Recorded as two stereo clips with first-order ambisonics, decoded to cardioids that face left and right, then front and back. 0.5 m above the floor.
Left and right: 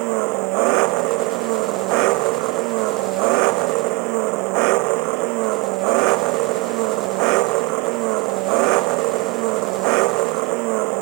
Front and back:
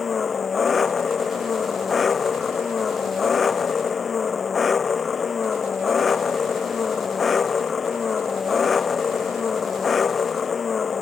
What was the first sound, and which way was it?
An engine running, 70° right.